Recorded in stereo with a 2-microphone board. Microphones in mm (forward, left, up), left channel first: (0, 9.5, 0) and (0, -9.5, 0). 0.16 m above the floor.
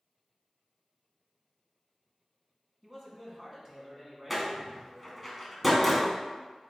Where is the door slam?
10° right (ahead or behind), 1.1 m.